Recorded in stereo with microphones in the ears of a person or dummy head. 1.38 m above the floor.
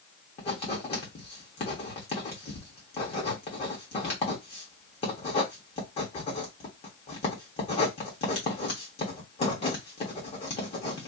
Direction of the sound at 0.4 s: 35° left (ahead or behind).